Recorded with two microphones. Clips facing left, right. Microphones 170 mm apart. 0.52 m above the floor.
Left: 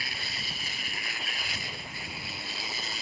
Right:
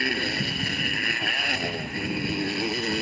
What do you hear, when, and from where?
0.0 s a motorcycle: 65° right (ahead or behind)